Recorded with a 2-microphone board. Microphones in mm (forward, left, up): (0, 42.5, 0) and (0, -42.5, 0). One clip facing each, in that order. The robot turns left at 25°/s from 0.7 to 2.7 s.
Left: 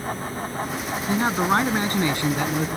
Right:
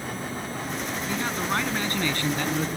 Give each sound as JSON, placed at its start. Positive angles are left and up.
{"t": 1.1, "sound": "a man speaking", "azimuth_deg": 45}